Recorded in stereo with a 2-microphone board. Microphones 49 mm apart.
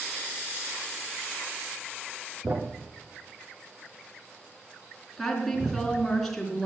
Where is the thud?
55° right (ahead or behind), 1.8 m.